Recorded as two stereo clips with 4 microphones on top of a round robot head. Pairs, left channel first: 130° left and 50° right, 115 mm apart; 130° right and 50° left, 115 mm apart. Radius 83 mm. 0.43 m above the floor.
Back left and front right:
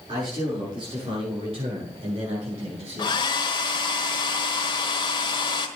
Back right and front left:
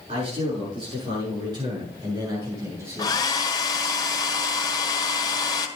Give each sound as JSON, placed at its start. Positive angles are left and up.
{"t": 0.1, "sound": "a man speaking", "azimuth_deg": 5, "distance_m": 8.5}
{"t": 3.0, "sound": "a hair dryer", "azimuth_deg": 175, "distance_m": 1.4}